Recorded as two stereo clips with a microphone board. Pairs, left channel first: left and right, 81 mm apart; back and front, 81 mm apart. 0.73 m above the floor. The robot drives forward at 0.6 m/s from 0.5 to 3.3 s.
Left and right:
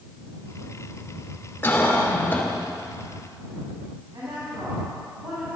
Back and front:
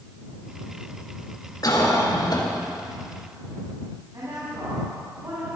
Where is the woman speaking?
45° right, 6.5 m.